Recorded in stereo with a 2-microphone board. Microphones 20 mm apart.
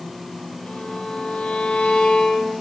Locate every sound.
0.7 s a violin: 65° left (ahead or behind), 5.5 m